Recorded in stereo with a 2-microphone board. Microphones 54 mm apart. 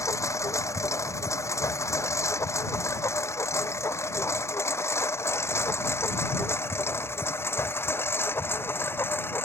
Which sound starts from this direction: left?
A lawn mower, at 0.0 s.